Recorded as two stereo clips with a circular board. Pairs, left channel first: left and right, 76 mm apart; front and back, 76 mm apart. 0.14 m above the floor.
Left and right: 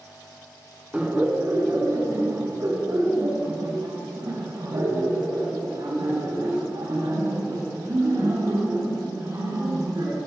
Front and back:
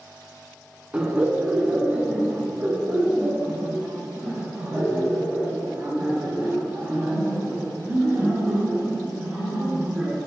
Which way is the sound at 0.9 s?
140° right.